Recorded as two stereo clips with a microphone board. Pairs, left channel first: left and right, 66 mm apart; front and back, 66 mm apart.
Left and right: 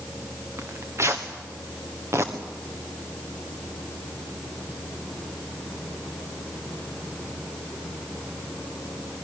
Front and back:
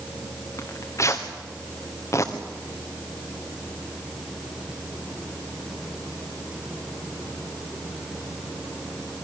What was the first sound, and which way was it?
Tearing paper, 45° right.